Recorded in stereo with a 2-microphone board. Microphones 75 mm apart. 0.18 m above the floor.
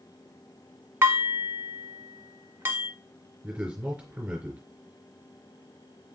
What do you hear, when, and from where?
1.0 s dishes clattering: 30° right (ahead or behind), 1.0 m
3.4 s a man speaking: 15° right (ahead or behind), 2.5 m